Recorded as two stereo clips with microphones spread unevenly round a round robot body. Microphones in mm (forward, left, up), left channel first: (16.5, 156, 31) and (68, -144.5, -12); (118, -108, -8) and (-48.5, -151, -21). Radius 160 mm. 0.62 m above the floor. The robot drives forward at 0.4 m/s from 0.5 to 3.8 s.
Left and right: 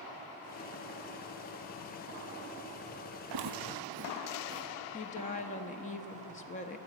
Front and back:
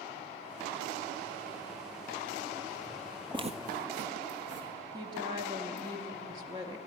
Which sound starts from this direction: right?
Footsteps, at 3.3 s.